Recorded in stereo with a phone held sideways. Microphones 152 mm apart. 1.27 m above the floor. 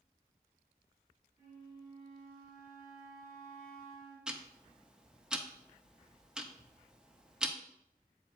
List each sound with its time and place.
1.4 s a flute: 50° right (ahead or behind), 4 m
4.3 s ticking: 5° right (ahead or behind), 0.6 m